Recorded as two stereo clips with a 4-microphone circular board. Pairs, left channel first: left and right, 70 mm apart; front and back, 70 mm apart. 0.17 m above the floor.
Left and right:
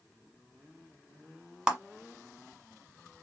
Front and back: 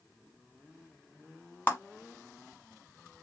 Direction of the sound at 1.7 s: 20° right.